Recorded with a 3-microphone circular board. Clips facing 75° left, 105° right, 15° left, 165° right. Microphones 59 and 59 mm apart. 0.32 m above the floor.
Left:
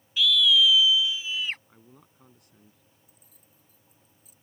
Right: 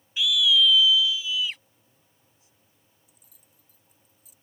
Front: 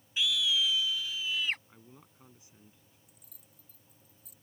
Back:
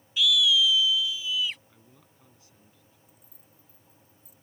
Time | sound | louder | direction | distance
0.2 | a scream | left 1 dB, back 7 dB | 35° right | ?
1.7 | a man speaking | left 11 dB, front 2 dB | 85° left | ?
3.1 | keys jangling | left 2 dB, back 4 dB | 30° left | ?